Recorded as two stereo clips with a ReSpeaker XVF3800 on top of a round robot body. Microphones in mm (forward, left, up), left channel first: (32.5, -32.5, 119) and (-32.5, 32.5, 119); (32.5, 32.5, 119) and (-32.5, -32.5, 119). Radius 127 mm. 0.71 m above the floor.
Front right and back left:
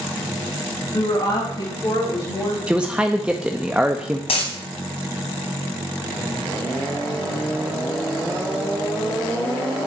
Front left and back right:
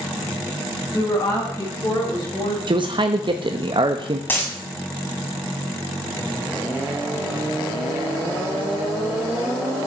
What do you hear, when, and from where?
0.9 s a woman speaking: 5° right, 6.5 m; by 2.6 s 10° left, 5.5 m
2.7 s a man speaking: 150° right, 0.8 m
4.3 s a dropped coin: 25° right, 2.5 m